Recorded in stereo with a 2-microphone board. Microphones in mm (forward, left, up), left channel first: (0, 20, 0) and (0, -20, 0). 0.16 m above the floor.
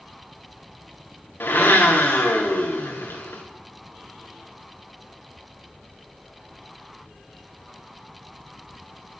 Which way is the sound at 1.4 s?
70° left (ahead or behind).